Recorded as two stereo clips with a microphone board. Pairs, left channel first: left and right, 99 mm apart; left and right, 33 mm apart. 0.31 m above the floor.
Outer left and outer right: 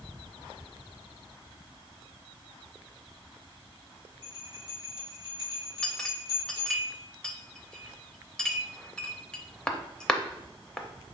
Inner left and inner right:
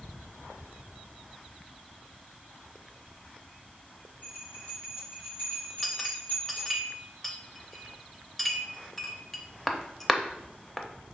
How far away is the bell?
About 2 m.